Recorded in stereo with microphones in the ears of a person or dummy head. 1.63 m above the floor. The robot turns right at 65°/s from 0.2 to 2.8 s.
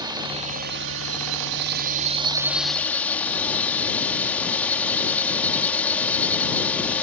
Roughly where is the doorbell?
I don't hear a doorbell.